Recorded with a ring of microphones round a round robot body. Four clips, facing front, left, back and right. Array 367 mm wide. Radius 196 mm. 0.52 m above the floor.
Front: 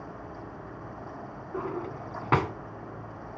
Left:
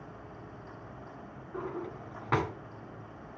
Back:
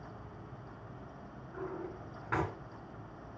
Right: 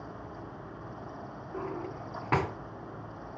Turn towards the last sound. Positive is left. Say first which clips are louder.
# right 1 dB, front 8 dB
turn(degrees=-5)